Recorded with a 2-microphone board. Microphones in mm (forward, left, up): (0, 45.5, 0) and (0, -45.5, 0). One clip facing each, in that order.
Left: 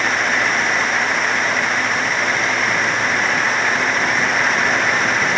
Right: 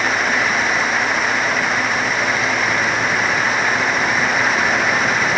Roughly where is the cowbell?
No cowbell in this recording.